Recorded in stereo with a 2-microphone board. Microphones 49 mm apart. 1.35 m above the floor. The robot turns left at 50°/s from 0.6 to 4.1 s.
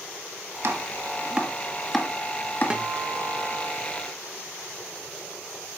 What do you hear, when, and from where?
0.6 s chopping: 55° right (ahead or behind), 1.7 m; by 2.8 s 50° left (ahead or behind), 1.7 m
2.7 s a guitar: 20° right (ahead or behind), 1.0 m